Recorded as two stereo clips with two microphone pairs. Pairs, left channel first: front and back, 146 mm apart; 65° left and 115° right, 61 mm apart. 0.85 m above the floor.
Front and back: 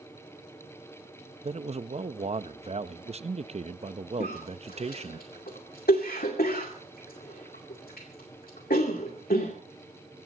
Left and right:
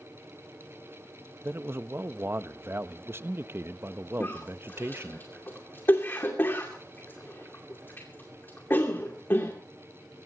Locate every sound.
1.4 s a man speaking: 150° right, 0.6 m
4.2 s a cough: 10° left, 2 m